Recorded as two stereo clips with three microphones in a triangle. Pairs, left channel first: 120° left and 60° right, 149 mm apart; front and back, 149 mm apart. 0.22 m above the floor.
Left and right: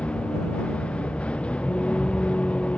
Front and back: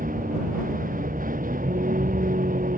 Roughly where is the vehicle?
Behind right.